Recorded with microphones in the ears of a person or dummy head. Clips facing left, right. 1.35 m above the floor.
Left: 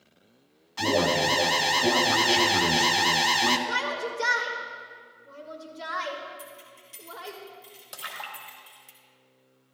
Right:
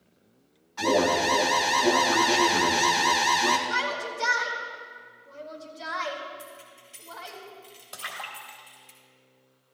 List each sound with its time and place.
0.8 s an alarm: 40° left (ahead or behind), 1.0 m
3.7 s a shout: 50° left (ahead or behind), 1.7 m
6.4 s keys jangling: 70° left (ahead or behind), 3 m
7.9 s a splash: 25° left (ahead or behind), 2.5 m